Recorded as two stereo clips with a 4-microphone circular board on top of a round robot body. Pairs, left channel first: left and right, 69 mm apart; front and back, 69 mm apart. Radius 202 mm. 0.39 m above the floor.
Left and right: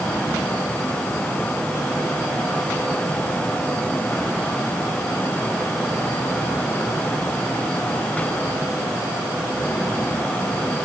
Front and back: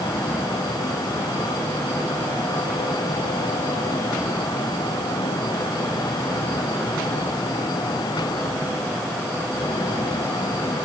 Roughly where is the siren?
I don't hear a siren.